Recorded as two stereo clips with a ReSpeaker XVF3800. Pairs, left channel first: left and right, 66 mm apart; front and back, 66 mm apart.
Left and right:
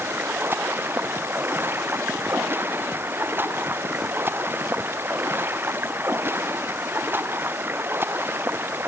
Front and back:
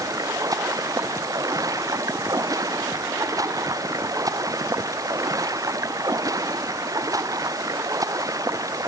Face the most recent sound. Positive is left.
turn(degrees=-150)